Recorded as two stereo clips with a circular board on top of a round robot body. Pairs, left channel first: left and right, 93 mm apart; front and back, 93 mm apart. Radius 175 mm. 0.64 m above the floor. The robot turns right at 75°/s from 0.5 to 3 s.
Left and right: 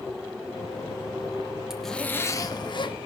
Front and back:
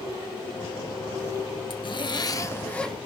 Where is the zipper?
5° right, 1.4 m; by 3.0 s 90° left, 1.4 m.